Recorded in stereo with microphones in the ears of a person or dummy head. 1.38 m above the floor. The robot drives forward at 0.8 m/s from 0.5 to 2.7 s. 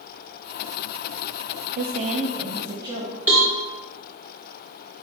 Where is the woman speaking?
40° right (ahead or behind), 0.5 m; by 3.2 s 15° right (ahead or behind), 1.2 m.